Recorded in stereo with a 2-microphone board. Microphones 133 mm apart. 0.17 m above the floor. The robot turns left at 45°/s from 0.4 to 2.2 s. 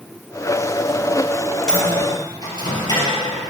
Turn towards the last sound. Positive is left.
turn(degrees=30)  # may be behind; listen again after turning